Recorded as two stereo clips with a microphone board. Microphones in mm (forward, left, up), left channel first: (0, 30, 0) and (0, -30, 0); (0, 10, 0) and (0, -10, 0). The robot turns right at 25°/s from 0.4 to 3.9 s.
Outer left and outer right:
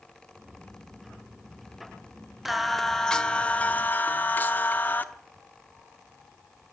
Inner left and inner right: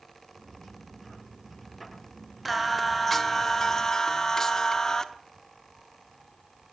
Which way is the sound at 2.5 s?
5° right.